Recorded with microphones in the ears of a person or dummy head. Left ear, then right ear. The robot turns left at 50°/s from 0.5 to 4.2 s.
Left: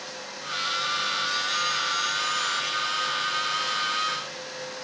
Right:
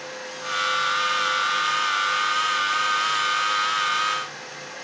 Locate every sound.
Only background noise.